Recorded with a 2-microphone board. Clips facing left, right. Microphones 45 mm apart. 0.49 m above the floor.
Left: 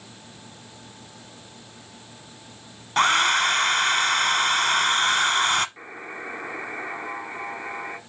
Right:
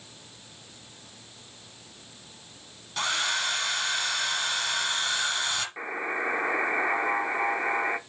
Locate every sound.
3.0 s a hair dryer: 60° left (ahead or behind), 0.8 m
5.8 s a buzzer: 35° right (ahead or behind), 0.8 m